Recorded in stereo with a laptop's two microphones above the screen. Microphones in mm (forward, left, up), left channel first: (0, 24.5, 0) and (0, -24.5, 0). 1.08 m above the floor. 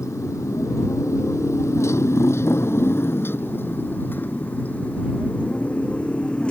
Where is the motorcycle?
85° left; by 6.5 s 25° left (ahead or behind).